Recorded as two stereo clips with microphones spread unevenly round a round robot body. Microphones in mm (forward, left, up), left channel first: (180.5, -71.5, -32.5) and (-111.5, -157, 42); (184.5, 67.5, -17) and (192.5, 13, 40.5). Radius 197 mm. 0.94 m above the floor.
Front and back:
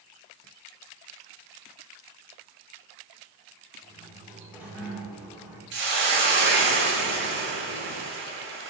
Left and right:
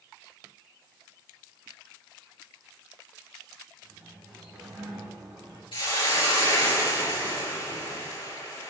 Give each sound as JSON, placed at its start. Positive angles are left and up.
{"t": 3.8, "sound": "a sliding door", "azimuth_deg": -75, "distance_m": 2.5}
{"t": 5.7, "sound": "a hiss", "azimuth_deg": 145, "distance_m": 1.4}